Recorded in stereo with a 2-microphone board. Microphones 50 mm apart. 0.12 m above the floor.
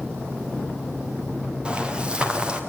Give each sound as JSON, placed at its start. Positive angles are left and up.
{"t": 1.6, "sound": "footsteps", "side_deg": -20, "distance_m": 2.5}